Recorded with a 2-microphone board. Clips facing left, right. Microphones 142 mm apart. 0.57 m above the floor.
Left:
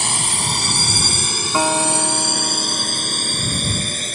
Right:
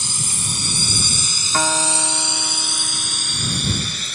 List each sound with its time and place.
0.0 s a drone: 70° left (ahead or behind); by 4.2 s 45° left (ahead or behind)
1.5 s a guitar: 20° left (ahead or behind)